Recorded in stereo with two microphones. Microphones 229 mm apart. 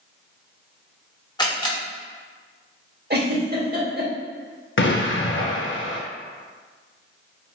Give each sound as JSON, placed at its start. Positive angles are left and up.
{"t": 1.4, "sound": "a camera shutter", "side_deg": 20, "distance_m": 0.7}
{"t": 3.1, "sound": "a giggle", "side_deg": -45, "distance_m": 0.8}
{"t": 4.8, "sound": "an explosion", "side_deg": 55, "distance_m": 0.5}